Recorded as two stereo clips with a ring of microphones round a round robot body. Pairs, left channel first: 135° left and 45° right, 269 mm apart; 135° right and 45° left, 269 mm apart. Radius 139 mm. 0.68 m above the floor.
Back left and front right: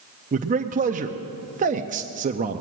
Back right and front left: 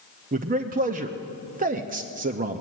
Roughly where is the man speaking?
Ahead.